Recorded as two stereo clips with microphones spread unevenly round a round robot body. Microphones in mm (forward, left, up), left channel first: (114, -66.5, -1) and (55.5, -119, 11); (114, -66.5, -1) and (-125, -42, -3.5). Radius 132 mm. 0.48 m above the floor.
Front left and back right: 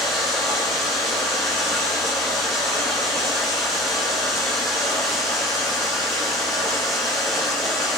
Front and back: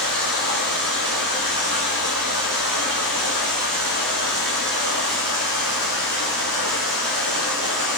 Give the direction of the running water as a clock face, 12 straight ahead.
6 o'clock.